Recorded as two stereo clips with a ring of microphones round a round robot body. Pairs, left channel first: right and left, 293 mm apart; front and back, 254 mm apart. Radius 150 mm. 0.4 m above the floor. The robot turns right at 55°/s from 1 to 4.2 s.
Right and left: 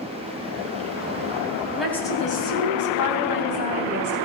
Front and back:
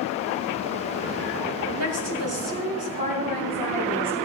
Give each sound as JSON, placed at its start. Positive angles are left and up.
{"t": 1.8, "sound": "a woman speaking", "azimuth_deg": 175, "distance_m": 3.0}